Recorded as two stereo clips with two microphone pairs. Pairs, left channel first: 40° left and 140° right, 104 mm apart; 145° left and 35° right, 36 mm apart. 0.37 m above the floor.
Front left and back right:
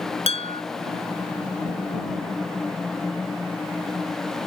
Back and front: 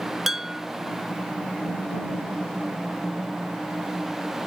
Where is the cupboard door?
I don't hear a cupboard door.